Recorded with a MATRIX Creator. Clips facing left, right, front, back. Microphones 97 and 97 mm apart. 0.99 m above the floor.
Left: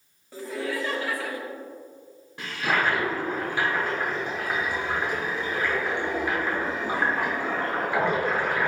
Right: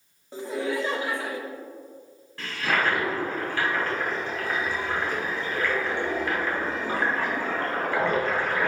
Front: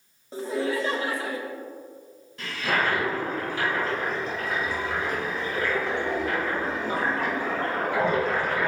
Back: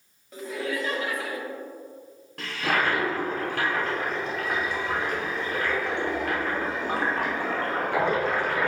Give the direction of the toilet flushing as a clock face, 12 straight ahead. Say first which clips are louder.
Even, even; 7 o'clock.